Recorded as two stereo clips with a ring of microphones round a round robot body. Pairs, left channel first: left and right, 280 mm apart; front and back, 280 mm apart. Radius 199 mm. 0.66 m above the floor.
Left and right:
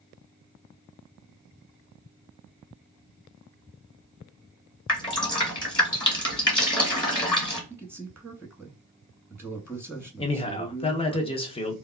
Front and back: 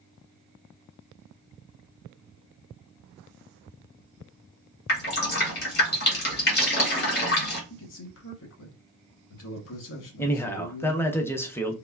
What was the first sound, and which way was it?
Dripping, 25° left.